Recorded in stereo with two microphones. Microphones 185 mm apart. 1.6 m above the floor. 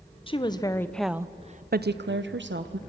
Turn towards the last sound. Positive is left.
turn(degrees=-80)